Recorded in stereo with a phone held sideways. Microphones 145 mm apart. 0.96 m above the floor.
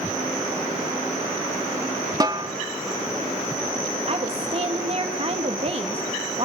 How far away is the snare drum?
About 1.2 m.